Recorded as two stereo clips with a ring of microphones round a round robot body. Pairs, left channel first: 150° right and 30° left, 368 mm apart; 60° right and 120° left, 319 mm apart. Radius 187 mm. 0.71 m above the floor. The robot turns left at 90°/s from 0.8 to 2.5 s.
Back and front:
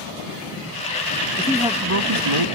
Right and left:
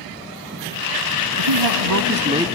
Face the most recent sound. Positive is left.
turn(degrees=35)